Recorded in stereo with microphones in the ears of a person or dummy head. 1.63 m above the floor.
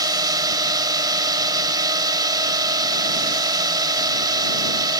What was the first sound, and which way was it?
A drone, 20° right (ahead or behind).